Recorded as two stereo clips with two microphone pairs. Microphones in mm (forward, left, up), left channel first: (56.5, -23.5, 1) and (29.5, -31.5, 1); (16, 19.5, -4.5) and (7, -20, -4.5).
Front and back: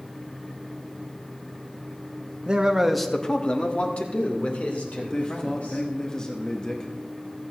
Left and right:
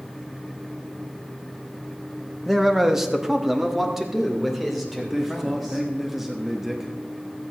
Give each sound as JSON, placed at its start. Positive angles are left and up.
{"t": 2.5, "sound": "a man speaking", "azimuth_deg": 180, "distance_m": 1.0}
{"t": 4.9, "sound": "a man speaking", "azimuth_deg": -20, "distance_m": 1.1}